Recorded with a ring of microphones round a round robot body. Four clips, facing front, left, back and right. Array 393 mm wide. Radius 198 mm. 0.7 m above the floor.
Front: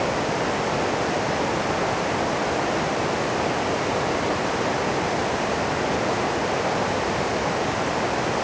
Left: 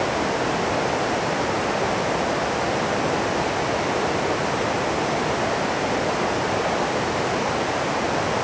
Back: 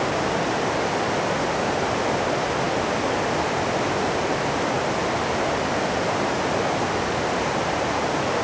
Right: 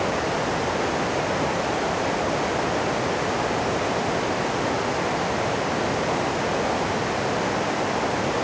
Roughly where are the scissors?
I don't hear scissors.